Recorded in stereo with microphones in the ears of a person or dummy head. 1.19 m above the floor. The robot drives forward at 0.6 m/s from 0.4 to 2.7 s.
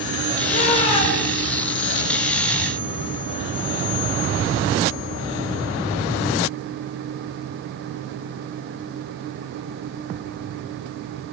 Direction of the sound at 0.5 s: 40° left (ahead or behind).